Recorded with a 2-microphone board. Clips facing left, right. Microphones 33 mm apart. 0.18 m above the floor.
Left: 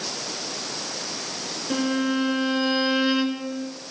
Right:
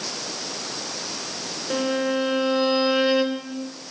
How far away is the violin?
About 2 m.